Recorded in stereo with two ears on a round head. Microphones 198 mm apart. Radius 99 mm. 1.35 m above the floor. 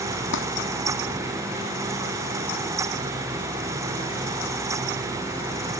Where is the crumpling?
55° left (ahead or behind).